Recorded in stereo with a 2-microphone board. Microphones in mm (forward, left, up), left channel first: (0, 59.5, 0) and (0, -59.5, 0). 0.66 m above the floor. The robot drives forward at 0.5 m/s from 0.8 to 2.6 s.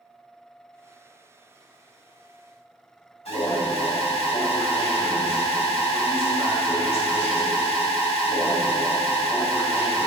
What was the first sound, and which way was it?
An alarm, 65° left (ahead or behind).